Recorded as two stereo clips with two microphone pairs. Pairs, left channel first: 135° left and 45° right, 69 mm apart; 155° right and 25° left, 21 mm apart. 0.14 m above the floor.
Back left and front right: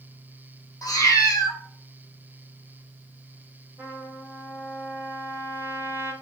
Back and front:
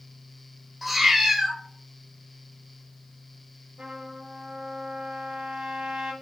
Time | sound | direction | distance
0.8 | a cat meowing | 105° left | 1.5 m
3.8 | a trumpet | 5° left | 3 m